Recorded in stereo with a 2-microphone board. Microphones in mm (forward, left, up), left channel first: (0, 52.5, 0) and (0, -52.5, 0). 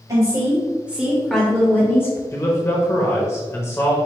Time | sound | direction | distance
0.1 | a woman speaking | 35° right (ahead or behind) | 1.4 m
2.3 | a man speaking | 25° left (ahead or behind) | 1.0 m